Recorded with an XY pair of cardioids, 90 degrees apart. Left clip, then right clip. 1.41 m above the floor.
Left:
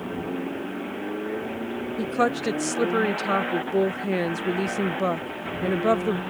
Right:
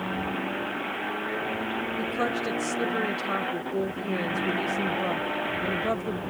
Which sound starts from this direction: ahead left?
A woman speaking, at 2.0 s.